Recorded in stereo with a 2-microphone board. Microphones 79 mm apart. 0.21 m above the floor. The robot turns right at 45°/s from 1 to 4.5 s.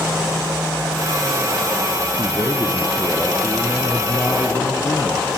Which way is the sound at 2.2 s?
50° right.